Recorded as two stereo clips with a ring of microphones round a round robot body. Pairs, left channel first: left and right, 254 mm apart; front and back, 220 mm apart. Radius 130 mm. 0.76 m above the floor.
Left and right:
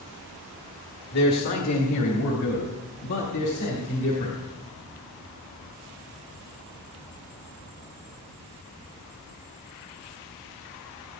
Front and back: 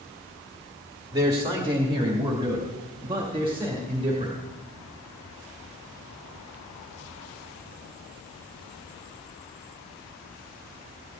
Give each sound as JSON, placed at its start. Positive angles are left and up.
{"t": 1.1, "sound": "a man speaking", "azimuth_deg": 110, "distance_m": 2.0}